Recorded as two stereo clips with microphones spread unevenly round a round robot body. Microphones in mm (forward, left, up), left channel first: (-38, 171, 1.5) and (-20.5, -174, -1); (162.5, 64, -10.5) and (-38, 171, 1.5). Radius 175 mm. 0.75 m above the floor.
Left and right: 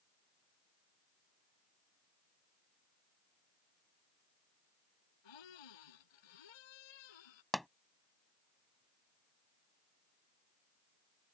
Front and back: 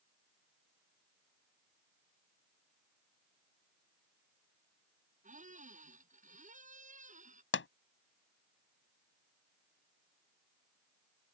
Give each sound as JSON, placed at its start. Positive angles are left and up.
{"t": 5.2, "sound": "a squeak", "azimuth_deg": 95}
{"t": 7.5, "sound": "a pop", "azimuth_deg": 5}